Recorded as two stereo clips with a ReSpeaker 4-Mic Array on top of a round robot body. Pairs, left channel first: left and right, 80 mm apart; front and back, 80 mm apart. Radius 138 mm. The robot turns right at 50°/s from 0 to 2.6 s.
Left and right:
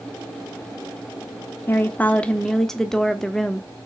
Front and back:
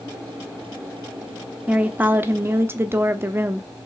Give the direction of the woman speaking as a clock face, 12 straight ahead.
8 o'clock.